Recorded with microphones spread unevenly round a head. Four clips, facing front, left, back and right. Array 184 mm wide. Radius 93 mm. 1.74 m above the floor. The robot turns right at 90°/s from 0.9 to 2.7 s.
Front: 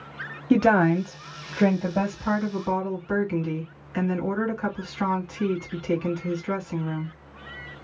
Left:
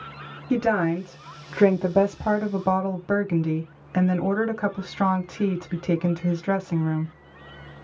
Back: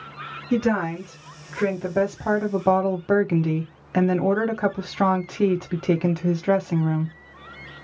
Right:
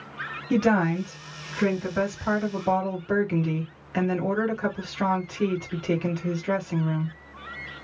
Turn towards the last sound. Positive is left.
turn(degrees=165)